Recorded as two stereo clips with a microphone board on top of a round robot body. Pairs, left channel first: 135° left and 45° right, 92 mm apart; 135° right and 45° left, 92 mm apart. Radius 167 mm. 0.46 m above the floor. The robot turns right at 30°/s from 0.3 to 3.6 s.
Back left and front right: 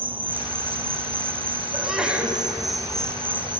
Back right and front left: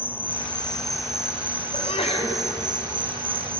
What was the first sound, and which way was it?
An insect, 65° right.